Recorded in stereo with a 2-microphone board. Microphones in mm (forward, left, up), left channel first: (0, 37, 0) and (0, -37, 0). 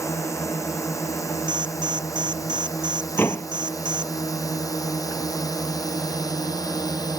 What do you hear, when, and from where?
0.0 s a drone: 45° left (ahead or behind); by 7.2 s 60° left (ahead or behind)
1.5 s an alarm: 80° right
3.2 s a door slam: 30° left (ahead or behind)